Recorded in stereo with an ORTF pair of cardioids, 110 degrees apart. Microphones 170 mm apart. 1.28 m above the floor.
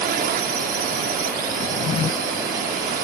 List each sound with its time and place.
0.0 s a drone: 65° right
1.6 s a drawer: 40° left